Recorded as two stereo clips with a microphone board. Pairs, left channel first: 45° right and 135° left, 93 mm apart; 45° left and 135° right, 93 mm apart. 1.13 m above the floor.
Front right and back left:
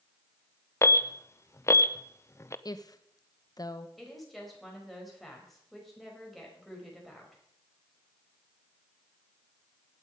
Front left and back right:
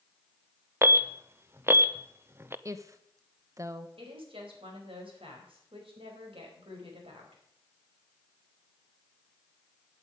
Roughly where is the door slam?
I don't hear a door slam.